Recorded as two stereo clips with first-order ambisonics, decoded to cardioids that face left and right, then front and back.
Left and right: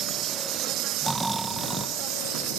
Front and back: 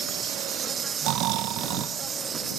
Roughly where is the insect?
Behind right.